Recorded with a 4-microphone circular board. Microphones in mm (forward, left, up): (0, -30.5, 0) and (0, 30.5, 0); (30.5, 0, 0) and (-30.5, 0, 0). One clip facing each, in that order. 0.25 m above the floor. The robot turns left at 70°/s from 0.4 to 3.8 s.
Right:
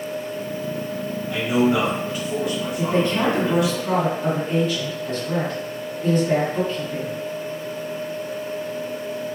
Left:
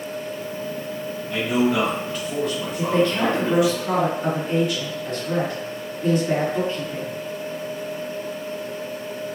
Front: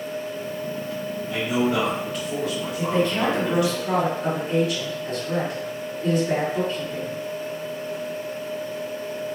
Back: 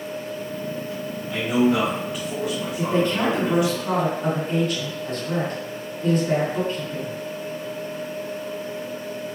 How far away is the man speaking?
About 1.2 m.